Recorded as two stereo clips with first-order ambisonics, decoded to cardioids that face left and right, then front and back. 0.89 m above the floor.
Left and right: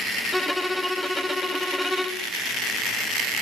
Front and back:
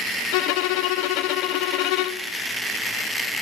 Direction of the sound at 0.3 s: 5° left.